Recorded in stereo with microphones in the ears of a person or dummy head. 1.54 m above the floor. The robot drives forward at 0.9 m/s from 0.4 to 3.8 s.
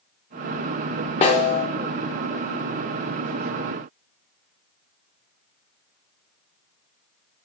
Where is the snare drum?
35° left (ahead or behind), 1.5 m.